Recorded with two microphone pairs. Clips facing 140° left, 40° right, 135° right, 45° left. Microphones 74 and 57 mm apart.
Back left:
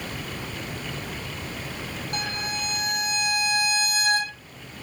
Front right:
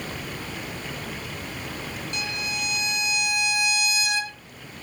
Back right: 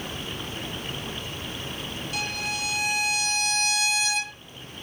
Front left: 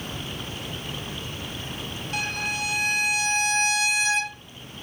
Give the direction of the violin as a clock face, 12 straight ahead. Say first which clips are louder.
Back left 2 dB, front left 3 dB; 9 o'clock.